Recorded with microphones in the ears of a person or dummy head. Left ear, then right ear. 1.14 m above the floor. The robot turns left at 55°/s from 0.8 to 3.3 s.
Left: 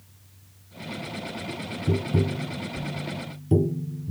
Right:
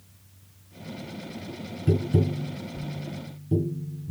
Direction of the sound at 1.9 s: 35° right (ahead or behind).